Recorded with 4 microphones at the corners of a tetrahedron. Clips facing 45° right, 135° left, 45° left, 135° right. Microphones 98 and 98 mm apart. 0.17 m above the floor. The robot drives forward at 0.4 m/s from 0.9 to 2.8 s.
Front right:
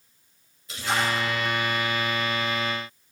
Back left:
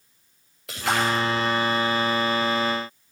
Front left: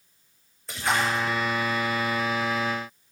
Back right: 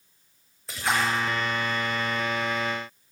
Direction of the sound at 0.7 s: 135° left.